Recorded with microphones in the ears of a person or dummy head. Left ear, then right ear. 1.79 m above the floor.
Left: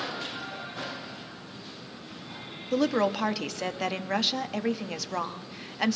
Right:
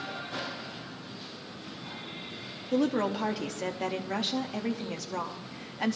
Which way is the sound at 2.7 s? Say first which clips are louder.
Left 3 dB; 30° left (ahead or behind).